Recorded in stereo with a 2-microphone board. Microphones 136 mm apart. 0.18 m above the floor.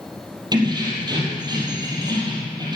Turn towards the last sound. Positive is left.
turn(degrees=-30)  # may be behind; listen again after turning